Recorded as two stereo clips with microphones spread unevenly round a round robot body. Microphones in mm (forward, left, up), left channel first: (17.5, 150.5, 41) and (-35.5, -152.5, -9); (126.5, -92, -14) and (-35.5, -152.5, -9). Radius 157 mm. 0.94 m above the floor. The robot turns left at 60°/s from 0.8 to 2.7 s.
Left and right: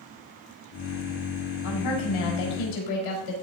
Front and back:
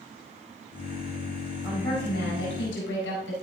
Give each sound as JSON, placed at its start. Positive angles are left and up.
{"t": 1.6, "sound": "a woman speaking", "azimuth_deg": 120, "distance_m": 4.5}